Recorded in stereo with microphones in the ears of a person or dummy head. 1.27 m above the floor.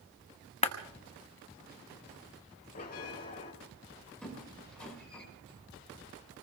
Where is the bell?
45° left (ahead or behind), 2.0 m.